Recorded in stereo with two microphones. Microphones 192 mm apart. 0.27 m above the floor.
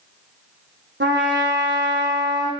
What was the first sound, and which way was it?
A trumpet, 80° right.